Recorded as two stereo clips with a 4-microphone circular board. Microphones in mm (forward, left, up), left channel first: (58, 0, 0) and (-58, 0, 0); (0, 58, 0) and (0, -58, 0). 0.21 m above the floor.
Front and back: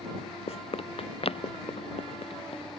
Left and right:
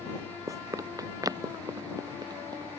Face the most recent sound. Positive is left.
turn(degrees=-35)